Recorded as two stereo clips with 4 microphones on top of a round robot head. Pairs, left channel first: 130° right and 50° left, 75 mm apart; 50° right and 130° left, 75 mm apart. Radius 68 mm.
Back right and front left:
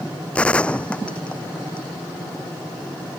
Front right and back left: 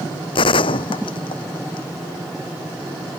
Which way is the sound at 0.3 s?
50° right.